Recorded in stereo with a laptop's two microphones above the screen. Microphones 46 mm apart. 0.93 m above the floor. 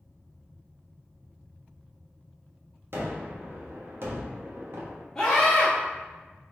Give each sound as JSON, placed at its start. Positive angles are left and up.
{"t": 2.9, "sound": "a gunshot", "side_deg": -60, "distance_m": 1.2}
{"t": 5.2, "sound": "a scream", "side_deg": 15, "distance_m": 1.4}